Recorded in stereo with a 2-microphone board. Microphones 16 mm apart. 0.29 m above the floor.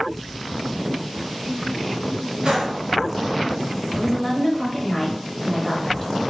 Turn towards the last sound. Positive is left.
turn(degrees=15)  # may be behind; listen again after turning